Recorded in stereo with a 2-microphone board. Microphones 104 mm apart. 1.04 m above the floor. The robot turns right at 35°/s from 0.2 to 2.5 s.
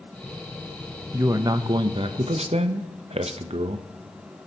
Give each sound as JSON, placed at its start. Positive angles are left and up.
{"t": 1.1, "sound": "a man speaking", "azimuth_deg": -155, "distance_m": 0.5}